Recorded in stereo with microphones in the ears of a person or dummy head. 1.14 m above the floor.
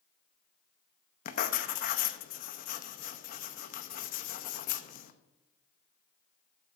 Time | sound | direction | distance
1.2 | writing | 45° left (ahead or behind) | 0.7 m